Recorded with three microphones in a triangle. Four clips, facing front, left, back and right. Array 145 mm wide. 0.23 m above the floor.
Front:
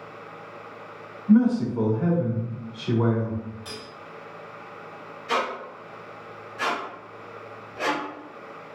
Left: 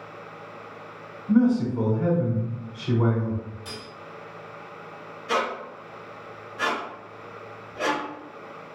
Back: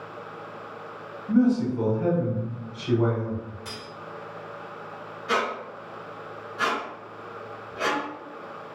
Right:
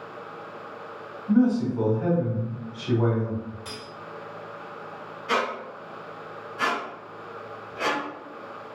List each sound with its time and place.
1.3 s a man speaking: straight ahead, 1.1 m
3.6 s cutlery clinking: 105° right, 1.2 m
5.3 s a squeak: 145° right, 1.4 m